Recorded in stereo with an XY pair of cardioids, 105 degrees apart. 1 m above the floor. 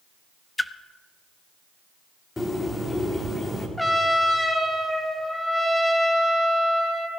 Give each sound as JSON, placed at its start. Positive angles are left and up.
{"t": 0.6, "sound": "a splash", "azimuth_deg": 10, "distance_m": 0.6}
{"t": 2.4, "sound": "a bird", "azimuth_deg": 20, "distance_m": 2.5}
{"t": 3.8, "sound": "a trumpet", "azimuth_deg": 5, "distance_m": 2.0}